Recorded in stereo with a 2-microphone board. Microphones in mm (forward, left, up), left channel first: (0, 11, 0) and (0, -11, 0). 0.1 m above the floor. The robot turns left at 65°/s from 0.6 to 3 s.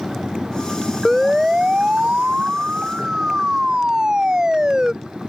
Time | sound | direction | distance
1.1 | a siren | 5° right (ahead or behind) | ?